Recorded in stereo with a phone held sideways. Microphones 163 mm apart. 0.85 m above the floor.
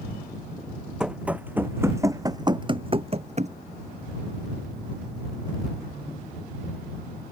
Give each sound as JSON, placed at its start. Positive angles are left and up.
{"t": 1.0, "sound": "running footsteps", "side_deg": -5}